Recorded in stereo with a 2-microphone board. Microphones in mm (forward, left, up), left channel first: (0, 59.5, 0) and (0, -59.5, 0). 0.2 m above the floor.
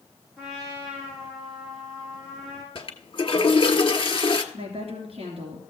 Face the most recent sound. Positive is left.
turn(degrees=-60)  # may be behind; listen again after turning